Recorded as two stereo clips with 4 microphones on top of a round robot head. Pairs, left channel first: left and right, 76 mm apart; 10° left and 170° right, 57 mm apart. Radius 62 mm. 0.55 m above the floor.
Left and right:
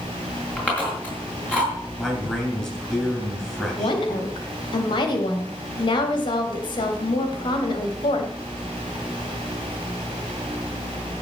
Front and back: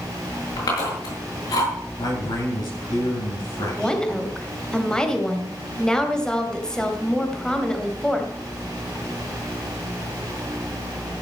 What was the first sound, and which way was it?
Chewing, 15° left.